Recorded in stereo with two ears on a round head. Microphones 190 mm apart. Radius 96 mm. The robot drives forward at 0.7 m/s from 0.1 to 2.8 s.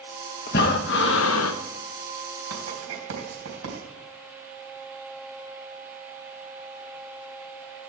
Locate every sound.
0.5 s breathing: 45° left (ahead or behind), 1.4 m; by 1.6 s 75° left (ahead or behind), 1.0 m
2.5 s writing: 75° right (ahead or behind), 3.5 m